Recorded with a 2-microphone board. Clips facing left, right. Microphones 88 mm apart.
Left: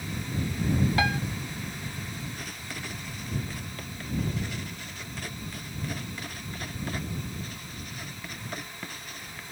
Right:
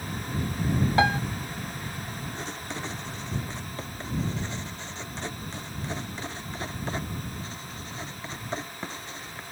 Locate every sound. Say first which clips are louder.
1.0 s a piano: right 8 dB; 30° right (ahead or behind)
2.4 s writing: right 4 dB; 25° right (ahead or behind)